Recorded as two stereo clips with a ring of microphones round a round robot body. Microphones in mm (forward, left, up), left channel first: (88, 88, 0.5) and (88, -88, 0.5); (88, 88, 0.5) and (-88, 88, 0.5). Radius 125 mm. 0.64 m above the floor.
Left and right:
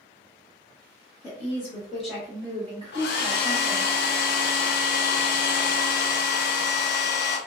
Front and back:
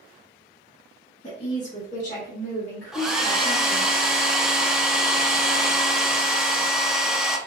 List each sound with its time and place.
1.2 s a woman speaking: 40° left, 1.1 m; by 3.9 s 95° right, 1.4 m
2.9 s a hair dryer: 95° left, 0.6 m